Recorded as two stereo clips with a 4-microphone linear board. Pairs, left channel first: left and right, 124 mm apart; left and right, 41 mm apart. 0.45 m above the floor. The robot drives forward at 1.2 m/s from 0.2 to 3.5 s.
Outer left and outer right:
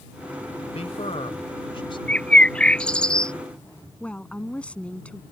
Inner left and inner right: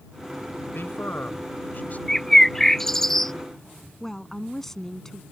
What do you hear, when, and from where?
0.7 s a man speaking: 60° left (ahead or behind); by 2.0 s 40° left (ahead or behind)
2.1 s a bird: 10° left (ahead or behind); by 3.3 s 5° left (ahead or behind)
4.0 s a woman speaking: 10° left (ahead or behind)